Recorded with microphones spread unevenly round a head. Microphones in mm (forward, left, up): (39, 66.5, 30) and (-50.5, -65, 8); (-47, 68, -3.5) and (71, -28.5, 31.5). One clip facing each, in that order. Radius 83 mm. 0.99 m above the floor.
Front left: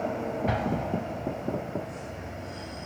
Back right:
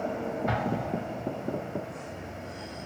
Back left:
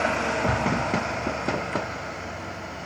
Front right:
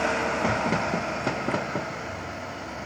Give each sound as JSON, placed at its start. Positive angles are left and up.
{"t": 0.5, "sound": "an explosion", "azimuth_deg": 135, "distance_m": 1.3}